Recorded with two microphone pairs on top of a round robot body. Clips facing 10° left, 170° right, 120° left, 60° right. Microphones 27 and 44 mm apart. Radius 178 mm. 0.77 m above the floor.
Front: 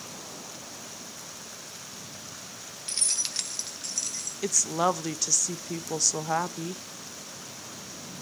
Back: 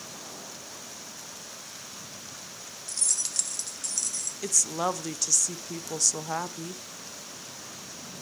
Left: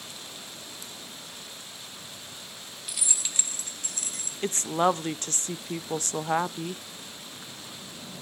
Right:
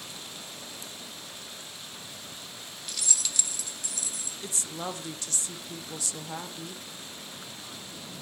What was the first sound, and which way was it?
Keys jangling, 35° left.